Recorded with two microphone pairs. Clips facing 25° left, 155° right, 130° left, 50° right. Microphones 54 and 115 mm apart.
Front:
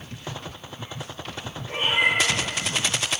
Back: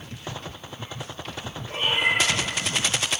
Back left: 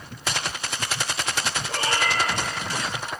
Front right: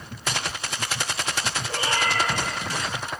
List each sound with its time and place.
1.7 s a cat meowing: 95° left, 1.8 m